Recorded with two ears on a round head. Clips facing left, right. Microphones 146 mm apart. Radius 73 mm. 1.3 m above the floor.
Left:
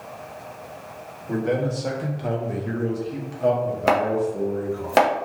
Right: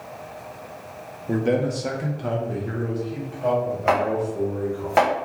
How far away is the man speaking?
About 0.7 m.